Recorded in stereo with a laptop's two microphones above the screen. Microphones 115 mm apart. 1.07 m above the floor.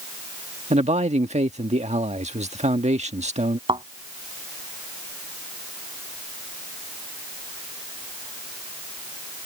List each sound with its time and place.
0.7 s a man speaking: 75° right (ahead or behind)
3.7 s a thud: 50° right (ahead or behind)